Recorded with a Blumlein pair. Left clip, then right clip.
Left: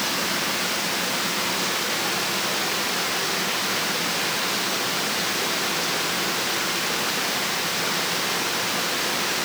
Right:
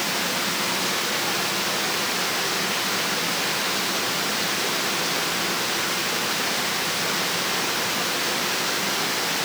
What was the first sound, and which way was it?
Only background noise.